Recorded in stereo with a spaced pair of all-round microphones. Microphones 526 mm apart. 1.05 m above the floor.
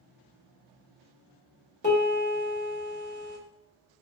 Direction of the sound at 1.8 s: 20° left (ahead or behind).